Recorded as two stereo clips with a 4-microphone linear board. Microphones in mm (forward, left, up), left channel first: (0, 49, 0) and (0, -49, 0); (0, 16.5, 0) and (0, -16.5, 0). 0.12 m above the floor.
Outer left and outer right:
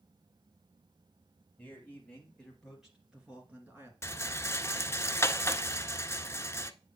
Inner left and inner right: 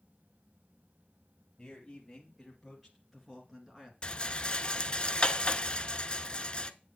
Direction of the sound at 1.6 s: 15° left (ahead or behind).